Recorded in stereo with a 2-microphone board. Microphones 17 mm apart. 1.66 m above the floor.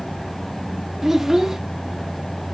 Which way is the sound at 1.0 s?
25° right (ahead or behind).